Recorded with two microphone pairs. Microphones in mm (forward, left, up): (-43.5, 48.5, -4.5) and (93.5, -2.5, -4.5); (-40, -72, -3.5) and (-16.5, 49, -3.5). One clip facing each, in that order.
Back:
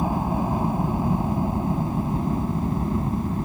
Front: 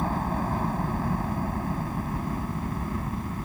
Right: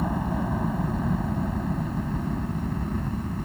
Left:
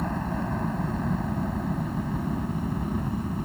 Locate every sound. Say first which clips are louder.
0.0 s a helicopter: back 4 dB, right 2 dB; 165° right; by 3.5 s 150° left